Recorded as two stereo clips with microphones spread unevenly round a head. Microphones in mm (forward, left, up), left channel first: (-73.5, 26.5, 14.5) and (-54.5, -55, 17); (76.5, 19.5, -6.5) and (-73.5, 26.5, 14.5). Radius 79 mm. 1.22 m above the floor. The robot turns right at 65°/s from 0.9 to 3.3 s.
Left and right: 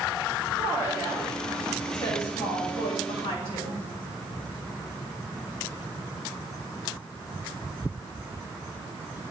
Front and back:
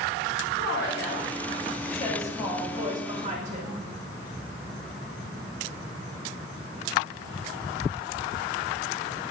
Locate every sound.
0.6 s a woman speaking: 25° right, 3.5 m; by 3.8 s 130° left, 3.5 m